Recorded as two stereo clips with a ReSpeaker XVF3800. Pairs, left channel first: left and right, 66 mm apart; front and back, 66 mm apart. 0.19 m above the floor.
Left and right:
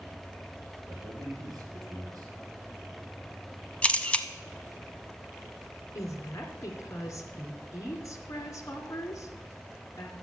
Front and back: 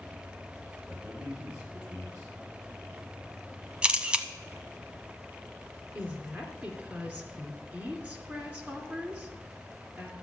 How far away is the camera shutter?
About 0.8 m.